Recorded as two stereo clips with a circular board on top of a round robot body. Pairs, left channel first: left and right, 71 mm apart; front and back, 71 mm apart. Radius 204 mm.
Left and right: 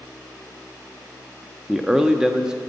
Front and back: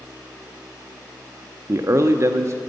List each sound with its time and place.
1.7 s a man speaking: 165° right, 0.8 m